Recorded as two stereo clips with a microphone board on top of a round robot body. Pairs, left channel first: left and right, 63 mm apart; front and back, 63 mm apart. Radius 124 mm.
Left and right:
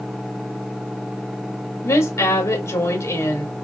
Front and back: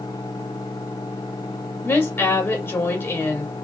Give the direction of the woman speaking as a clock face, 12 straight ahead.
10 o'clock.